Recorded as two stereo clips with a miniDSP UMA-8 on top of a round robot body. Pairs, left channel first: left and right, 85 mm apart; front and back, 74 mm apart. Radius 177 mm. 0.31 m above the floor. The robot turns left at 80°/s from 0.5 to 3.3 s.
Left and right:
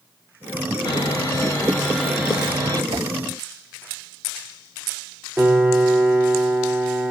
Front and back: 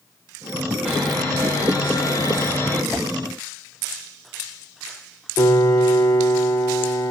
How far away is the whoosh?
About 0.7 m.